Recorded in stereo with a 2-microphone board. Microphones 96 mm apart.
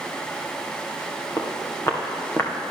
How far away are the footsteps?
About 4 m.